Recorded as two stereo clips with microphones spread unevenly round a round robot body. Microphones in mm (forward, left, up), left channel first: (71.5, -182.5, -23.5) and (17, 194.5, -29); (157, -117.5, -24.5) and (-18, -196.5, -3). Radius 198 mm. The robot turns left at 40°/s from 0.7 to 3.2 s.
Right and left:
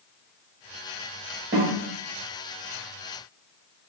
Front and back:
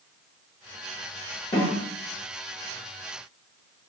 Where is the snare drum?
50° left, 1.0 m; by 1.8 s 35° left, 1.0 m.